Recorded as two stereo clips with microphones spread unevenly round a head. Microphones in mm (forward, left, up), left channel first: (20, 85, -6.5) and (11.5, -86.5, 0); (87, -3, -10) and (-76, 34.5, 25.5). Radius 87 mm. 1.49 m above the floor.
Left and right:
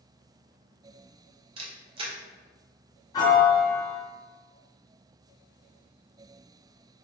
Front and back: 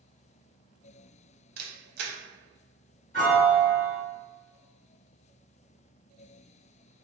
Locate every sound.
1.6 s a camera shutter: 155° right, 0.5 m
3.1 s a piano: 30° left, 1.7 m